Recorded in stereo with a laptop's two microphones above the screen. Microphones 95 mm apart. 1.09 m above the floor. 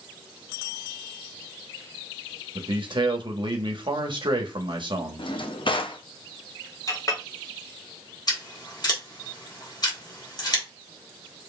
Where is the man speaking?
55° right (ahead or behind), 1.2 m.